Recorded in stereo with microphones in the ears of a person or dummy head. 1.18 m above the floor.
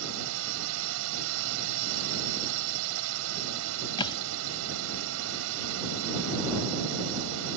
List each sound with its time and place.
0.0 s a drone: 70° right (ahead or behind)
4.0 s a thud: 25° left (ahead or behind)